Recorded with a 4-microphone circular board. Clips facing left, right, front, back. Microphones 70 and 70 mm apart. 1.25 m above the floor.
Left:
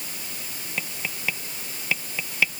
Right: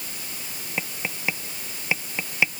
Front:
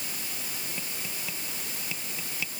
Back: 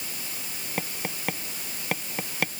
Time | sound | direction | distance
0.8 | tapping | 160° right | ?